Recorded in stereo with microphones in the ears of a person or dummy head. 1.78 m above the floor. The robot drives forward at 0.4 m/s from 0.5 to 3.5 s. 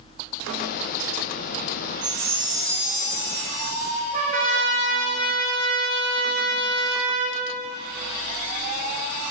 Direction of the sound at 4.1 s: 50° right (ahead or behind).